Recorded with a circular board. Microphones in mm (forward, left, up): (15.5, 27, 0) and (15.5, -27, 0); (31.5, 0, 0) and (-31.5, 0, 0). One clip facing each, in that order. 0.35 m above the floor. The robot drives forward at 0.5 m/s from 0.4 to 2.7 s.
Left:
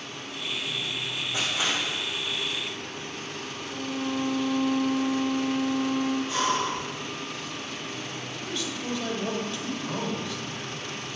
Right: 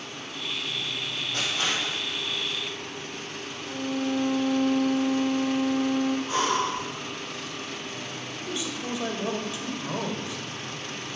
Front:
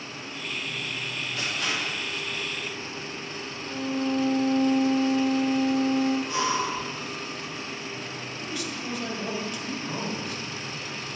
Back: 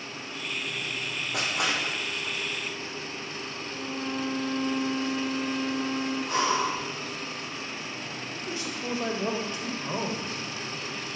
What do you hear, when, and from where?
1.3 s crushing: 170° left, 3 m
3.7 s a violin: 50° right, 2.5 m
6.3 s breathing: 145° right, 4.5 m
8.3 s a man speaking: 155° right, 1.5 m